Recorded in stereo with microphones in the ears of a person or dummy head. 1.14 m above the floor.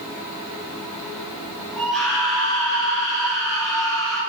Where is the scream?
Centre (ahead or behind), 3 m.